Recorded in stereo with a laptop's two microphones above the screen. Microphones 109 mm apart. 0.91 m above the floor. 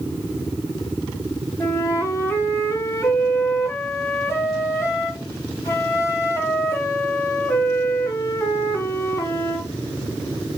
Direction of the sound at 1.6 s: 25° left (ahead or behind).